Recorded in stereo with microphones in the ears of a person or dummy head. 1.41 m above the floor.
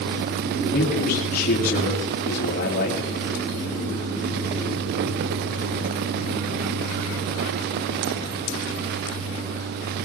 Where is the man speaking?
45° left (ahead or behind), 2.5 m.